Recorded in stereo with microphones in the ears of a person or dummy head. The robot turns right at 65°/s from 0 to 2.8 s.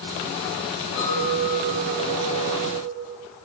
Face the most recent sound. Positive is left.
turn(degrees=-170)